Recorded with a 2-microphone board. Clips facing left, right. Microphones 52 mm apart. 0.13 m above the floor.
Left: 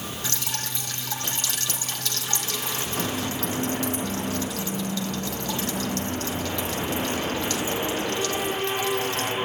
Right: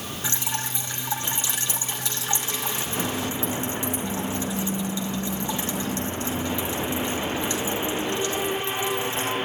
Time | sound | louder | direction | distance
0.2 | dripping | right 5 dB | 20° right (ahead or behind) | 2.5 m